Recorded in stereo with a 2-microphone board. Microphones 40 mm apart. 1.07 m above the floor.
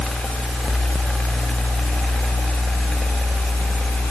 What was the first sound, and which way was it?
Only background noise.